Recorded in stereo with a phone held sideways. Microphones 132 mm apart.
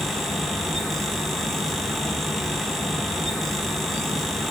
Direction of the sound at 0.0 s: Centre (ahead or behind).